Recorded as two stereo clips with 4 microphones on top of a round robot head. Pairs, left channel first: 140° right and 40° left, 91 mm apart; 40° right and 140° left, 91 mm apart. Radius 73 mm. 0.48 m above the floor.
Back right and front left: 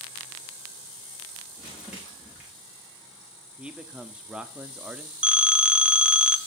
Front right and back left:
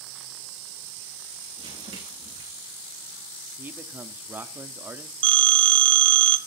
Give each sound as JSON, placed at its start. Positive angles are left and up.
{"t": 1.6, "sound": "crumpling", "azimuth_deg": 120, "distance_m": 7.0}
{"t": 3.6, "sound": "a man speaking", "azimuth_deg": 105, "distance_m": 1.1}
{"t": 5.2, "sound": "a phone ringing", "azimuth_deg": 120, "distance_m": 1.1}